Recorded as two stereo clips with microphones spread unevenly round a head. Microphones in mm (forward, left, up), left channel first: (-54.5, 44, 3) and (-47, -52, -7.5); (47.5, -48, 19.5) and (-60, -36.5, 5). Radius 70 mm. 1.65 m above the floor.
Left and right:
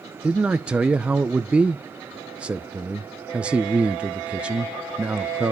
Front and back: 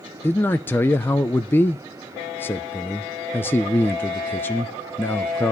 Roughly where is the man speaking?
Ahead.